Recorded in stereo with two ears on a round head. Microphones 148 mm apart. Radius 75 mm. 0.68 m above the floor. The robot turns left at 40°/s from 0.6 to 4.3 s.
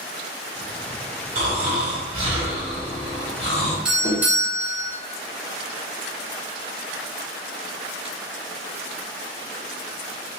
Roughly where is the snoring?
Right.